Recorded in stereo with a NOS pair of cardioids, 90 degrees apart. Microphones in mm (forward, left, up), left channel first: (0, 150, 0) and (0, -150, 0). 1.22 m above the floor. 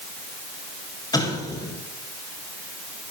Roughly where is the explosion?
Ahead.